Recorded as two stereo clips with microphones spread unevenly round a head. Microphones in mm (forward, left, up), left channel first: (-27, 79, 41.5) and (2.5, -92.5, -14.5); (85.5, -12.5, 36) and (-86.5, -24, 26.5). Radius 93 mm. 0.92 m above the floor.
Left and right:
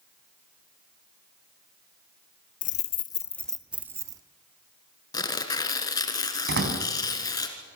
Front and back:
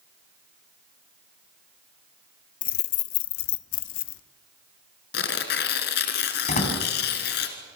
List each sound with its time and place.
2.6 s keys jangling: 50° left, 0.7 m; by 4.2 s 10° right, 1.1 m
5.1 s tearing paper: 35° left, 2 m
6.5 s a door slam: 45° right, 4.5 m